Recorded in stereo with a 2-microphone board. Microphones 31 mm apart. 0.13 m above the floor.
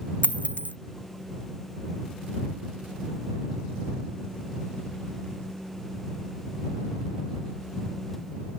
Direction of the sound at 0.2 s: 60° left (ahead or behind).